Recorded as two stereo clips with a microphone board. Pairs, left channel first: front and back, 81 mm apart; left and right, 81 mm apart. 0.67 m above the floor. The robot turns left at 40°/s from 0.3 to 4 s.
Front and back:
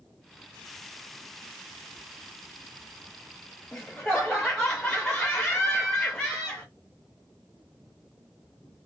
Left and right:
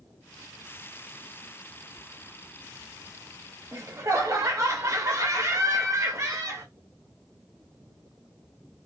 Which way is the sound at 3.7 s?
60° right.